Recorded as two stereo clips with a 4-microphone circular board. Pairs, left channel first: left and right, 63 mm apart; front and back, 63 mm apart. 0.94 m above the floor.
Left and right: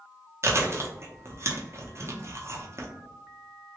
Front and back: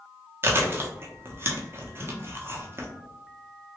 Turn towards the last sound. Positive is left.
turn(degrees=-130)